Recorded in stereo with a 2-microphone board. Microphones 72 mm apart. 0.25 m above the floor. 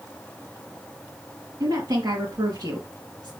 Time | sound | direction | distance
1.6 | a woman speaking | 50° right (ahead or behind) | 3 m